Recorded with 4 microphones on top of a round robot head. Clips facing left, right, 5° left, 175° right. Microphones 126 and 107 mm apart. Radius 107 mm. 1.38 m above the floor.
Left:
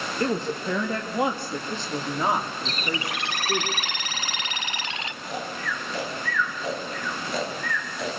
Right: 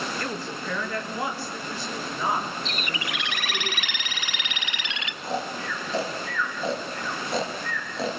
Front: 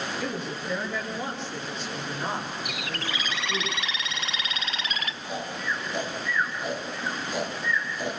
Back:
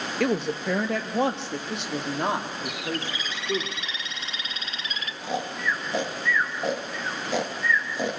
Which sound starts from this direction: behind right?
Snoring, at 5.2 s.